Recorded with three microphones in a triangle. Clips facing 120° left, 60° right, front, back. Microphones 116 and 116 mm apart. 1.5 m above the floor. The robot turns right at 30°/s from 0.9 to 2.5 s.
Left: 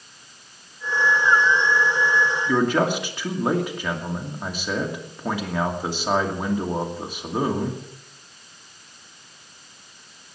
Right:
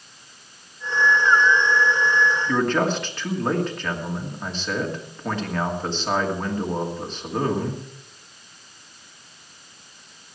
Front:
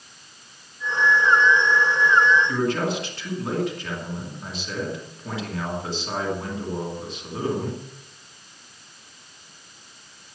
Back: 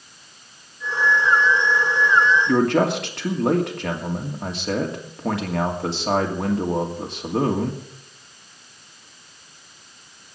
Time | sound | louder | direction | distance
2.5 | a man speaking | left 4 dB, back 6 dB | 160° right | 2.5 m